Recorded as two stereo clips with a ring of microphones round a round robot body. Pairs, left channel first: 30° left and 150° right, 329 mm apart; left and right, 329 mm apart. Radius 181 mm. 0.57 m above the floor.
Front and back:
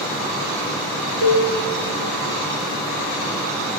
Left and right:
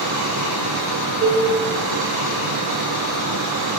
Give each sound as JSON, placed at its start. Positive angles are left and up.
{"t": 1.2, "sound": "a cowbell", "azimuth_deg": -155, "distance_m": 5.5}